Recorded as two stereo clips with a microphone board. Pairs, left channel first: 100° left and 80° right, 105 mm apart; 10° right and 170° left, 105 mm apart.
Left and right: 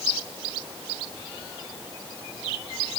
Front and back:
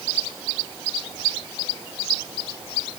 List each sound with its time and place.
Only background noise.